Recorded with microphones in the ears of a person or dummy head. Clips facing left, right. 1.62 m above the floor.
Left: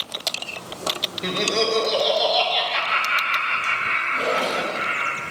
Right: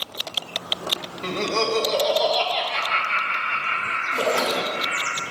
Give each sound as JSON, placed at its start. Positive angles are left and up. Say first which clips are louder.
{"t": 1.2, "sound": "laughter", "louder": "left 1 dB", "side_deg": 15, "distance_m": 1.7}
{"t": 4.1, "sound": "a splash", "louder": "right 1 dB", "side_deg": -35, "distance_m": 2.0}